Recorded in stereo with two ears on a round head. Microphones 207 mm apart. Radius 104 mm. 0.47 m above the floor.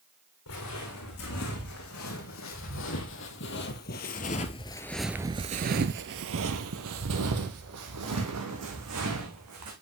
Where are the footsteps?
65° left (ahead or behind), 2.5 m; by 9.7 s 80° right, 2.5 m.